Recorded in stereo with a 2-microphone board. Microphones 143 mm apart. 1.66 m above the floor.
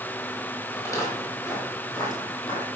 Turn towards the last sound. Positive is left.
turn(degrees=30)  # may be behind; listen again after turning